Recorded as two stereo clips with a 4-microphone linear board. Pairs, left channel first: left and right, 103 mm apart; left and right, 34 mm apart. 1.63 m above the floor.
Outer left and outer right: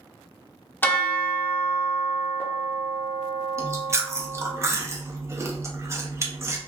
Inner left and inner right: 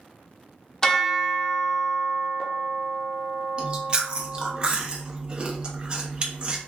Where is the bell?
20° left (ahead or behind), 0.6 m.